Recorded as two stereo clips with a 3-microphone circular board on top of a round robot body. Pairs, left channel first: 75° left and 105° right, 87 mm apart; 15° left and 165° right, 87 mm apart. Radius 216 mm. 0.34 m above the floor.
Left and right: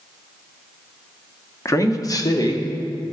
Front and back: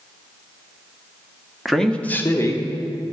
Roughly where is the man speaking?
Left.